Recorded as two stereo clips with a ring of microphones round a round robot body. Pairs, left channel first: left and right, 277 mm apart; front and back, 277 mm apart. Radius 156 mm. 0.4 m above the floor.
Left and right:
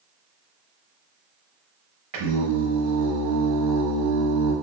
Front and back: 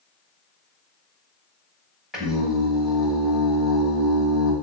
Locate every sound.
2.1 s singing: 90° right, 0.9 m